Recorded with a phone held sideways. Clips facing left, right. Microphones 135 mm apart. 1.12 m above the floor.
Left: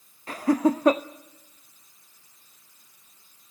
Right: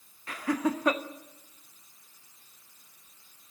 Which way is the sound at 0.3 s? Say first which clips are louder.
Left 7 dB; 35° left (ahead or behind).